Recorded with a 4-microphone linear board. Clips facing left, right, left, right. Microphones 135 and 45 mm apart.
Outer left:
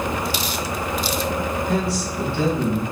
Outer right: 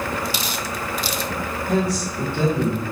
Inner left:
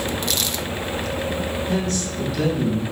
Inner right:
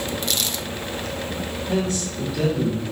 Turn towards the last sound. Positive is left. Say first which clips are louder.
# outer right 1 dB, even
turn(degrees=-20)  # may be behind; listen again after turning